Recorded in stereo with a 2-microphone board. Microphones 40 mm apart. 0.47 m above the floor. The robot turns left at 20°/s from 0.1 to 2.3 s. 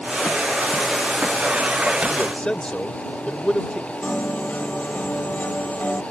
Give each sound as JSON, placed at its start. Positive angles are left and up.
{"t": 2.1, "sound": "a man speaking", "side_deg": 30}
{"t": 4.0, "sound": "a piano", "side_deg": 50}